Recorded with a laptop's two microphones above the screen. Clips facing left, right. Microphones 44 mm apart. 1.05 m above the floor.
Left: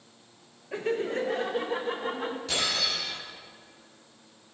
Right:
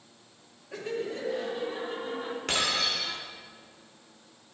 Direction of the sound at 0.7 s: 25° left (ahead or behind).